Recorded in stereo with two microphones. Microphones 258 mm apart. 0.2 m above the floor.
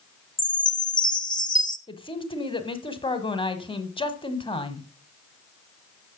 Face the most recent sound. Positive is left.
turn(degrees=20)  # may be behind; listen again after turning